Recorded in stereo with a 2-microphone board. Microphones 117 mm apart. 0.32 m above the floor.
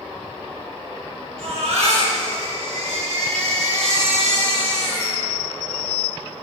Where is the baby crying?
70° right (ahead or behind), 3 m.